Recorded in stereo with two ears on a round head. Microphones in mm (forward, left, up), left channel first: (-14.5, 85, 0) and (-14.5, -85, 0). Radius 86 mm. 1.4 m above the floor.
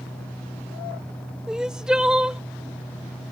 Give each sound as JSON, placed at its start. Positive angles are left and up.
{"t": 1.5, "sound": "crying", "side_deg": -5}